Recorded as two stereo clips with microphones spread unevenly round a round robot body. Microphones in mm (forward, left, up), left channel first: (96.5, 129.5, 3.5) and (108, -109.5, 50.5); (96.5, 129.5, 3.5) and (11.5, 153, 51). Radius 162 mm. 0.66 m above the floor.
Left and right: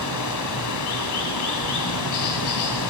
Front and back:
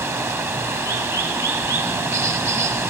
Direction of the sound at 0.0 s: 120° left.